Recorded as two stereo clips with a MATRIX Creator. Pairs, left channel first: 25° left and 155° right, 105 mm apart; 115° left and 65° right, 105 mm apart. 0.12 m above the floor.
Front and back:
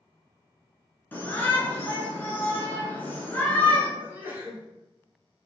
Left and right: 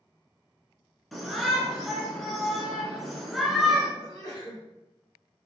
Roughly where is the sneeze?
Behind left.